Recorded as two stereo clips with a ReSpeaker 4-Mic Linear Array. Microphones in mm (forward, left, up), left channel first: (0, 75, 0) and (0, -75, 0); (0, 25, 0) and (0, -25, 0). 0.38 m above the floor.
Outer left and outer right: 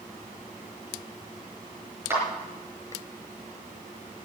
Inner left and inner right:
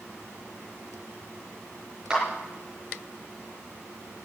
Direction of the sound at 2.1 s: 15° right (ahead or behind).